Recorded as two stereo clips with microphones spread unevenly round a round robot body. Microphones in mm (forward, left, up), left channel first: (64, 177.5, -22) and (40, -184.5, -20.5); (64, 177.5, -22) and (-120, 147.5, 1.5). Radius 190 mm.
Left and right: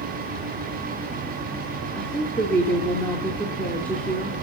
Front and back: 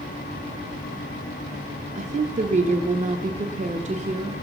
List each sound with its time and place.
1.9 s a woman speaking: 170° left, 0.8 m